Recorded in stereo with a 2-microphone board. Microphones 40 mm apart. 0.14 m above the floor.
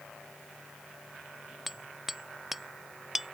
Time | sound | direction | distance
1.7 | hammering | 10° right (ahead or behind) | ?